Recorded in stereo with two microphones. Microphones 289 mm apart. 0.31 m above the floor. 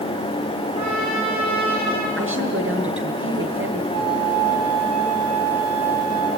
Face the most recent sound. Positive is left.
turn(degrees=-65)  # may be behind; listen again after turning